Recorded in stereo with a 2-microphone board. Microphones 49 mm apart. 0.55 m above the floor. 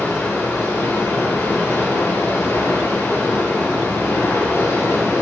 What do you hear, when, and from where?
0.0 s running water: 70° left (ahead or behind), 10 m